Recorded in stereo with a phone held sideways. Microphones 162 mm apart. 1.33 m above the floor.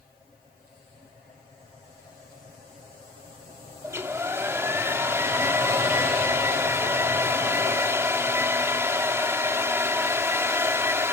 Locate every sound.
3.8 s a hair dryer: 15° right (ahead or behind), 1.7 m